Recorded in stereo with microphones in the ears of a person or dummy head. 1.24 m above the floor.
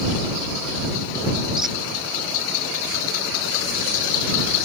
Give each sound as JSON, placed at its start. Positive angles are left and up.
{"t": 1.6, "sound": "a squeak", "side_deg": -5}